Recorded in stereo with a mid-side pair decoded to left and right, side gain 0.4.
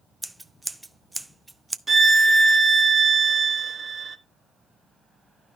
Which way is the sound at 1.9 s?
20° right.